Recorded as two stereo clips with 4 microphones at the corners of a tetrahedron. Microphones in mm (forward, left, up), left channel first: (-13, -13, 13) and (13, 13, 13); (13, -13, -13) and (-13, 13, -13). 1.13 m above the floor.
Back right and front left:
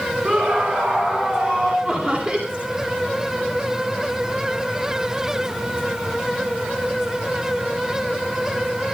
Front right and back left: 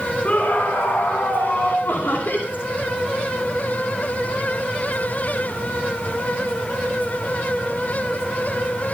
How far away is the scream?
About 3 m.